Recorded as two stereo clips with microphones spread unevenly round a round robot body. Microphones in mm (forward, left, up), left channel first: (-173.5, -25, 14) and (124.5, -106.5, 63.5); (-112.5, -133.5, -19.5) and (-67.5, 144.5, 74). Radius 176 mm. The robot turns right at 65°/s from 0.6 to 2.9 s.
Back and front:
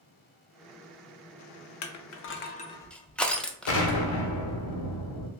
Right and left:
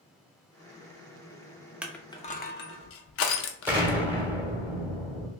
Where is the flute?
I don't hear a flute.